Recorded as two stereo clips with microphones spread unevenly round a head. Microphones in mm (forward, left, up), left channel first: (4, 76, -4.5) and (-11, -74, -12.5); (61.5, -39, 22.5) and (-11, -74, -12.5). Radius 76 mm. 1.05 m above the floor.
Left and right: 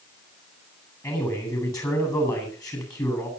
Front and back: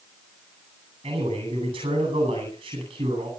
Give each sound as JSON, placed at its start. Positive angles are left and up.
{"t": 1.0, "sound": "a man speaking", "azimuth_deg": 155, "distance_m": 9.0}